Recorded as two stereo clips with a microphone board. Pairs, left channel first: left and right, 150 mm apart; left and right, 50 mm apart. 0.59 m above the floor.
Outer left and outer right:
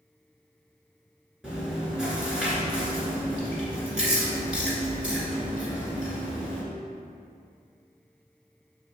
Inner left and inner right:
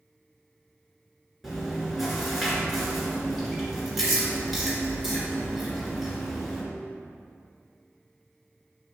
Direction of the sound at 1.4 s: 5° right (ahead or behind).